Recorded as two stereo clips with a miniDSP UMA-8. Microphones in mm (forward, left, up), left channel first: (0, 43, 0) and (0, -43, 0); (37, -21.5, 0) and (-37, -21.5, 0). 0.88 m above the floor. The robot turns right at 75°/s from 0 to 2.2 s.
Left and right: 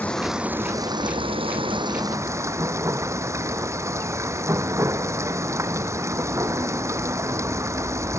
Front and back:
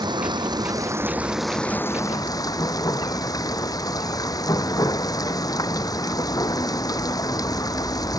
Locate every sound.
0.0 s running water: 160° left; by 8.2 s 35° right